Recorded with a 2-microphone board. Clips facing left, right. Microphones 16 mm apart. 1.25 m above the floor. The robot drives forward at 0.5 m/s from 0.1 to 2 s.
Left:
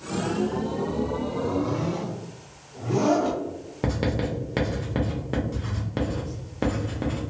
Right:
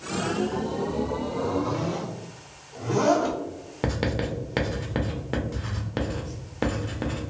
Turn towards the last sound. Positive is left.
turn(degrees=-10)  # may be behind; listen again after turning